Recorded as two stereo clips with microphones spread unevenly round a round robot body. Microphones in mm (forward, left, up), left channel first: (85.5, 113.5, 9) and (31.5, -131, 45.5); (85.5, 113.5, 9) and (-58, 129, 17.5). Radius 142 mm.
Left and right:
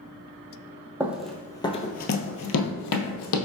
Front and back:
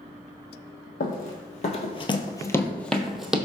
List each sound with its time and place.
1.0 s running footsteps: 25° right, 0.8 m; by 3.4 s 90° left, 0.9 m